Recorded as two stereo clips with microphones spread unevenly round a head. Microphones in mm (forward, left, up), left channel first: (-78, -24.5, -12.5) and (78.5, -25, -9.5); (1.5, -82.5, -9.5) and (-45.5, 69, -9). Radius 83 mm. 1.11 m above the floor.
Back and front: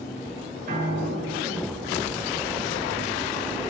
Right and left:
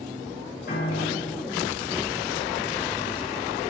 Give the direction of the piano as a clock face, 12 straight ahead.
1 o'clock.